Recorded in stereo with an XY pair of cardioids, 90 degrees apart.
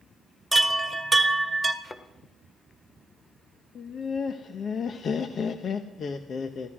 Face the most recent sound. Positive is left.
turn(degrees=55)